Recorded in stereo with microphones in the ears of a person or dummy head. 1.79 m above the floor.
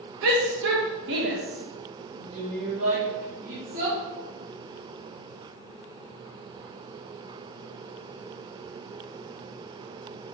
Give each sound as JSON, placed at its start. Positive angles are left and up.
{"t": 0.2, "sound": "a shout", "side_deg": -55, "distance_m": 1.5}